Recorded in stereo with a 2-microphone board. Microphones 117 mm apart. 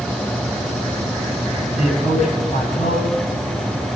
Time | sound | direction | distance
1.8 | a man speaking | 80° left | 8 m